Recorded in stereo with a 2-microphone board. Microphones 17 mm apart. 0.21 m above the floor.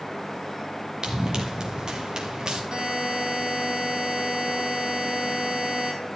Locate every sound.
1.0 s running footsteps: 40° right (ahead or behind), 2.5 m; by 2.6 s 50° right (ahead or behind), 3.5 m
2.7 s a buzzer: 60° right (ahead or behind), 3.5 m